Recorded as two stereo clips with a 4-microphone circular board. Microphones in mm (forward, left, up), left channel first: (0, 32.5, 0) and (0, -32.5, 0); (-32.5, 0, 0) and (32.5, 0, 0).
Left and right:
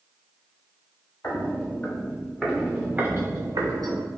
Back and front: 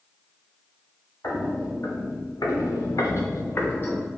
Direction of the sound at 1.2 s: 150° left.